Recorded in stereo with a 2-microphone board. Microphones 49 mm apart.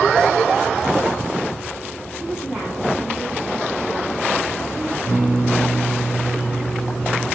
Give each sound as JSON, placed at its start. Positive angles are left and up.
{"t": 2.1, "sound": "a woman speaking", "side_deg": -25, "distance_m": 5.0}
{"t": 5.0, "sound": "a guitar", "side_deg": -45, "distance_m": 5.0}